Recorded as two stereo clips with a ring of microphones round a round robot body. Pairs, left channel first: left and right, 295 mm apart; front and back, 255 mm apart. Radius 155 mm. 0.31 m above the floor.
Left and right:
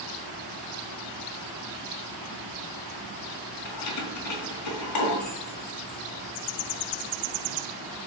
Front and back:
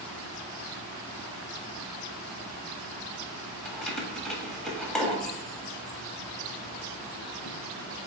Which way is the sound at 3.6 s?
85° left.